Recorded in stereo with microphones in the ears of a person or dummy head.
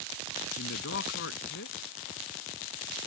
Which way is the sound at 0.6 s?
65° left (ahead or behind).